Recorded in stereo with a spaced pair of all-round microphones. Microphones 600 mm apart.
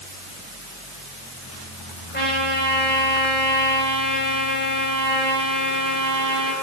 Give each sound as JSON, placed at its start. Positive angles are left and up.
{"t": 2.1, "sound": "a trumpet", "side_deg": 15, "distance_m": 9.0}